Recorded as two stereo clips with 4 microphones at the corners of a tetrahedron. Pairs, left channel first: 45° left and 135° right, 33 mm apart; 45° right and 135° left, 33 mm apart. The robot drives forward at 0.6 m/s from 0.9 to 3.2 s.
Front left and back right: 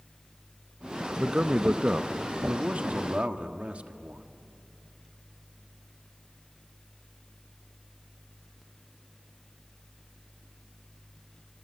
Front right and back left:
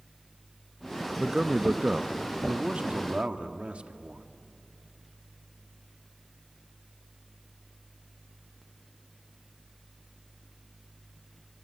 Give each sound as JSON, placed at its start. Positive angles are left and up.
{"t": 1.2, "sound": "a man speaking", "azimuth_deg": -160, "distance_m": 0.7}